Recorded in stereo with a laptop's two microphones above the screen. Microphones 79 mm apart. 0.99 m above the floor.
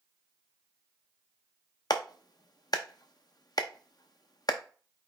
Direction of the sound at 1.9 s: 65° left (ahead or behind).